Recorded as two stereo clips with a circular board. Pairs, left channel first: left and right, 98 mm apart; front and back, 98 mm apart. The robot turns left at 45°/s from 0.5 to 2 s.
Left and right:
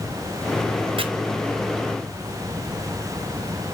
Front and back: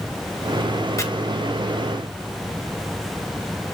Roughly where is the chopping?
Ahead right.